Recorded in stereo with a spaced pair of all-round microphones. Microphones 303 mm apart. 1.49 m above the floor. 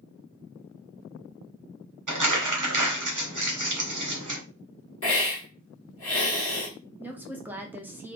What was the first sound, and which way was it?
Crumpling, 80° right.